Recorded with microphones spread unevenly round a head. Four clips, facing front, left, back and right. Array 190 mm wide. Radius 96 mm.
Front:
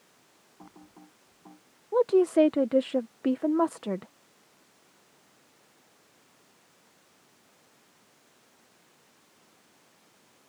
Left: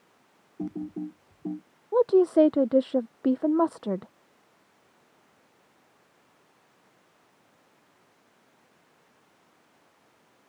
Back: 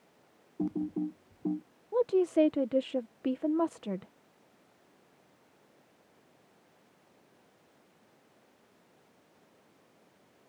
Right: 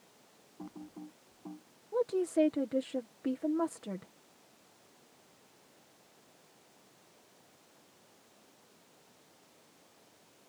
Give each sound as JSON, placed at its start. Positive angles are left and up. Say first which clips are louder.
{"t": 0.6, "sound": "typing on a keyboard", "louder": "left 13 dB, back 20 dB", "azimuth_deg": 145}
{"t": 1.9, "sound": "a woman speaking", "louder": "left 11 dB, front 5 dB", "azimuth_deg": 55}